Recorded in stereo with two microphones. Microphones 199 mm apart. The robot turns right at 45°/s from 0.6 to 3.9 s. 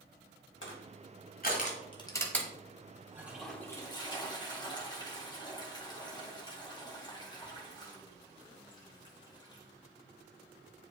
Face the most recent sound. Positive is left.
turn(degrees=25)